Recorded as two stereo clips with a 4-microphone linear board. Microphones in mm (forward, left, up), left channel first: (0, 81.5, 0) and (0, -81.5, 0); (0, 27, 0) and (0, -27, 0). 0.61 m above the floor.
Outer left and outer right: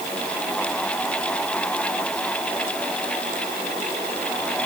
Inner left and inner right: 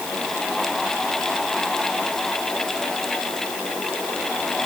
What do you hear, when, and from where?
Only background noise.